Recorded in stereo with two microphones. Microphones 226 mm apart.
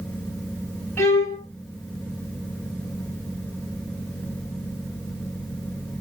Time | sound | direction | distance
1.0 | a violin | 10° left (ahead or behind) | 1.6 m